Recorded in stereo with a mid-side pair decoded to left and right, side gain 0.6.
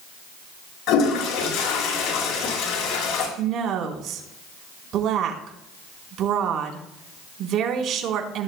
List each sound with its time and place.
0.9 s a toilet flushing: 55° left, 5 m
3.4 s a woman speaking: 50° right, 4 m